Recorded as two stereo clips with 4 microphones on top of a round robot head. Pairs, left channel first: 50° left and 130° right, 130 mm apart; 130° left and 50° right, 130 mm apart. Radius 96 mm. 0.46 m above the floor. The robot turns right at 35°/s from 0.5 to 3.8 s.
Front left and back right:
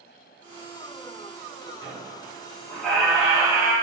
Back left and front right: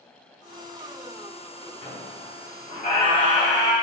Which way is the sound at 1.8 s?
100° left.